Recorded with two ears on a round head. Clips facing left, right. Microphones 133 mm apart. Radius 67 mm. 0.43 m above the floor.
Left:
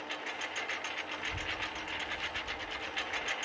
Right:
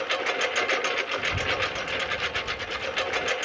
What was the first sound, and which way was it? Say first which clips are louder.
A lawn mower: right 14 dB; 75° right (ahead or behind).